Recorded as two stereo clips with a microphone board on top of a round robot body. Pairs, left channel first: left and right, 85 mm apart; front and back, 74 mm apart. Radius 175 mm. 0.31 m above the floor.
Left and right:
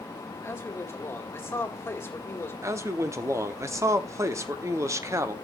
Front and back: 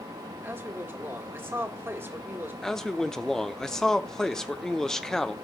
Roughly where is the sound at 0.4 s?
Behind left.